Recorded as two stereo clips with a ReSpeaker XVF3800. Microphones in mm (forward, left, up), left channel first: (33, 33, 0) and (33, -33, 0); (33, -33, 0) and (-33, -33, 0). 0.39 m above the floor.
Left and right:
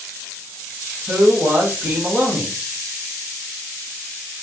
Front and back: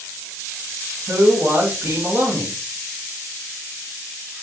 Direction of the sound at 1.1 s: 140° right.